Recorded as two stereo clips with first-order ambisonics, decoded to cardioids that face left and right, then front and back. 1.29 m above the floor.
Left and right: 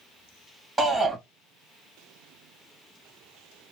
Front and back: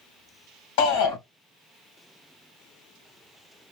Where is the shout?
Straight ahead, 2.5 m.